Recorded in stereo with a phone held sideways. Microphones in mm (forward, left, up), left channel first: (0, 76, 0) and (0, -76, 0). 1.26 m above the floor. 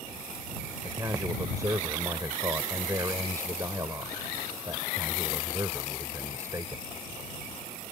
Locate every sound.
0.8 s a man speaking: 20° right (ahead or behind)